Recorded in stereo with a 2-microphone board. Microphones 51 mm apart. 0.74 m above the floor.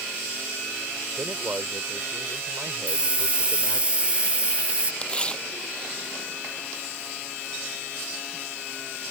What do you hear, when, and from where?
1.2 s a man speaking: 50° right (ahead or behind)
2.9 s a hiss: 20° right (ahead or behind)
5.0 s tearing paper: 20° left (ahead or behind)